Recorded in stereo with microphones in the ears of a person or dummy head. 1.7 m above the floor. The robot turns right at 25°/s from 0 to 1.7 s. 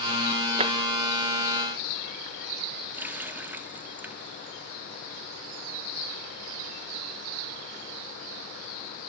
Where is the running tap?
Centre (ahead or behind), 2.5 m.